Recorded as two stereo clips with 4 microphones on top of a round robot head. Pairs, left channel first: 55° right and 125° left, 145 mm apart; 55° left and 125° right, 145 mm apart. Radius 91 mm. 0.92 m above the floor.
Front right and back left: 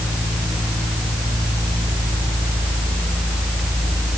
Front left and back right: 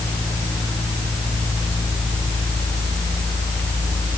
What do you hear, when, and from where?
Only background noise.